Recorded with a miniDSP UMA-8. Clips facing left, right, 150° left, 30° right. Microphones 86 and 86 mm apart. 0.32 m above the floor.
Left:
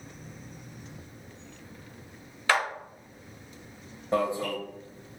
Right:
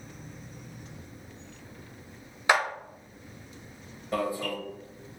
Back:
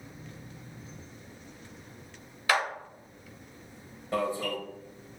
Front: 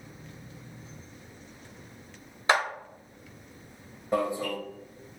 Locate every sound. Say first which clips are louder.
2.5 s a clap: right 1 dB, front 2 dB; 35° right, 0.7 m
4.1 s an alarm: left 3 dB, front 2 dB; 35° left, 0.8 m